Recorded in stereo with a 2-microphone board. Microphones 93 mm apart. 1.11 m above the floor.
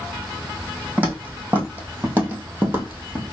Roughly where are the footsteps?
Centre.